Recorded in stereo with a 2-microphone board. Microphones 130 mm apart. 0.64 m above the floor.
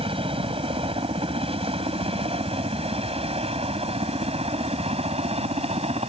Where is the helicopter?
45° right (ahead or behind); by 6.1 s 50° right (ahead or behind).